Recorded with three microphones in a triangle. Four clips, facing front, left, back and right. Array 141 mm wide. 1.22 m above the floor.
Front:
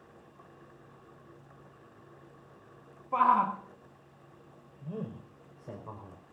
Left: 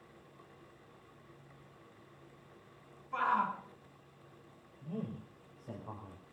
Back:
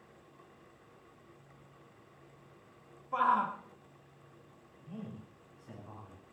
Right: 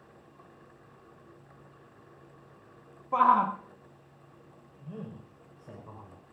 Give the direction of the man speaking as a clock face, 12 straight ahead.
12 o'clock.